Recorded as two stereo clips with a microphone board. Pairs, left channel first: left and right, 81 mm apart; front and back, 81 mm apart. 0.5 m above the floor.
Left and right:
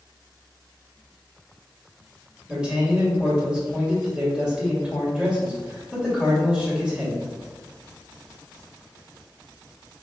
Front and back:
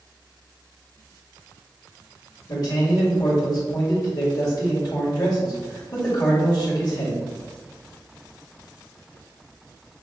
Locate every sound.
2.5 s a man speaking: 15° right, 2.0 m